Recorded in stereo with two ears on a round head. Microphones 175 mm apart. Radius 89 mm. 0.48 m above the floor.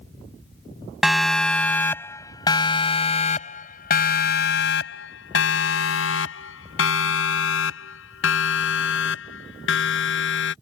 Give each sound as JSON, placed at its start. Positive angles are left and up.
{"t": 1.0, "sound": "a siren", "side_deg": 0}